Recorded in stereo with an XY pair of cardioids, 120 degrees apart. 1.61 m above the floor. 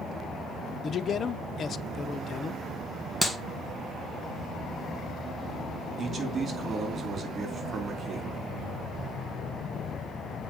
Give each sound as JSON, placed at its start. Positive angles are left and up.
{"t": 0.8, "sound": "a man speaking", "azimuth_deg": 40, "distance_m": 1.0}
{"t": 3.2, "sound": "a clap", "azimuth_deg": 0, "distance_m": 1.5}
{"t": 6.0, "sound": "a man speaking", "azimuth_deg": -35, "distance_m": 4.5}